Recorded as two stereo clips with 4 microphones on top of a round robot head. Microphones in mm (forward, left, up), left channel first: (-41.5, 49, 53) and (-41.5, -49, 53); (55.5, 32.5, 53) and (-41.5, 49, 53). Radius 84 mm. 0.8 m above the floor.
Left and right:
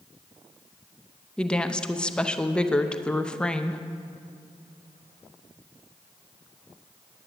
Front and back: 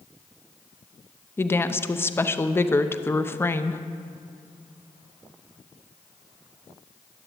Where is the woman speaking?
20° left, 0.8 m.